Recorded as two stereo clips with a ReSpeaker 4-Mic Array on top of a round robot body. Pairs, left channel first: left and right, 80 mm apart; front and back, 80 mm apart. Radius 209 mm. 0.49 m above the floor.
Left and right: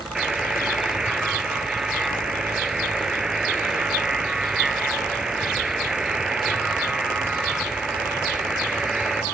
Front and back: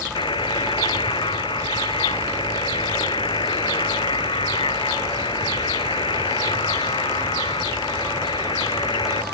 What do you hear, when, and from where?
0.1 s a buzzer: 5° right